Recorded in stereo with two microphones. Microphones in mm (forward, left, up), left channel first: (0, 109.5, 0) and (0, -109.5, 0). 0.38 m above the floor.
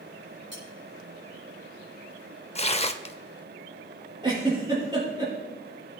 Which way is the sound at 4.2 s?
20° right (ahead or behind).